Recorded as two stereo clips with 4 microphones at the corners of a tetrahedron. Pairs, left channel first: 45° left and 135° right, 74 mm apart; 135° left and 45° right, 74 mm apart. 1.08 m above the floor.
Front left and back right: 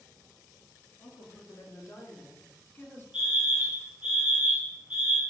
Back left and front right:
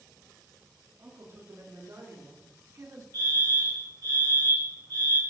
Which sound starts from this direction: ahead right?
A fire alarm, at 3.1 s.